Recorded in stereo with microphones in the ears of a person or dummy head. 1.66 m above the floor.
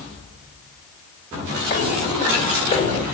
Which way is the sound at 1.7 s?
30° left (ahead or behind).